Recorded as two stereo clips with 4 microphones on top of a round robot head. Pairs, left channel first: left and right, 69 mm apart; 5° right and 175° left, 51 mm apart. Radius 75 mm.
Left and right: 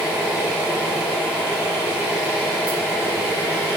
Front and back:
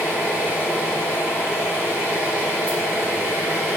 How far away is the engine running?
About 1.9 m.